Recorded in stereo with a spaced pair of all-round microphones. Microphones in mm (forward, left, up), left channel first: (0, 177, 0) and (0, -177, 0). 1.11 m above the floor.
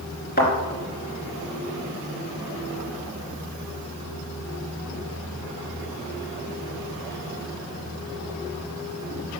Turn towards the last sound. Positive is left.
turn(degrees=30)  # may be behind; listen again after turning